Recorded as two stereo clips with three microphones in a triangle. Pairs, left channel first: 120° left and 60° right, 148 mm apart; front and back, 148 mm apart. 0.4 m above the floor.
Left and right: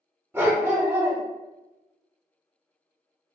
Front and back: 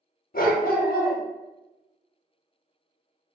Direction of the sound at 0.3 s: 15° left.